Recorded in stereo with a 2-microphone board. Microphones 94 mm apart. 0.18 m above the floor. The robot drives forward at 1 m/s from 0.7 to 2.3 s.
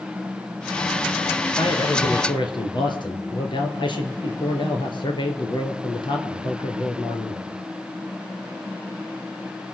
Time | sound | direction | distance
1.6 | a man speaking | 65° left (ahead or behind) | 2.5 m